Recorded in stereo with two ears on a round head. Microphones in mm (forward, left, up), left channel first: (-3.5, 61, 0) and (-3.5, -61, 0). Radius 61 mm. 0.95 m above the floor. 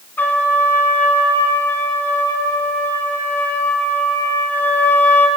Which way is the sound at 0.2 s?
15° left (ahead or behind).